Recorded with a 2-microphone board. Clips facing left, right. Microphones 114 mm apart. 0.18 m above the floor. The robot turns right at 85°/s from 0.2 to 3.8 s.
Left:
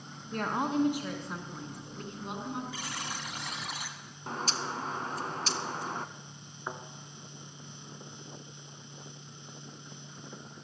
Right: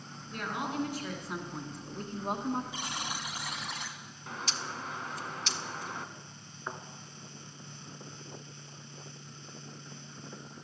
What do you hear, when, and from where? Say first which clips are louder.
0.3 s a woman speaking: left 5 dB; 100° left, 1.6 m; by 2.6 s 60° right, 1.6 m
2.7 s a buzzer: right 1 dB; 20° right (ahead or behind), 1.1 m; by 4.0 s 5° left (ahead or behind), 1.1 m
4.3 s a bird: left 4 dB; 35° left (ahead or behind), 0.6 m
6.7 s a thud: left 1 dB; 10° left (ahead or behind), 1.1 m